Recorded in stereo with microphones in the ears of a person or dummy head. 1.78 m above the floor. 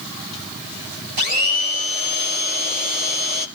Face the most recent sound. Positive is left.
turn(degrees=-40)  # may be behind; listen again after turning